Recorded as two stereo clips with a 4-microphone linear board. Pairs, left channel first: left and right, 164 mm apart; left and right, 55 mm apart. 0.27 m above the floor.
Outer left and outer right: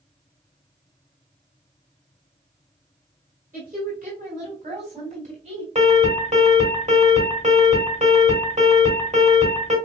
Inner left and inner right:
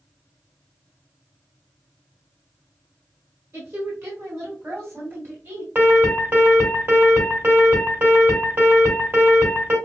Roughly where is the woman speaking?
Right.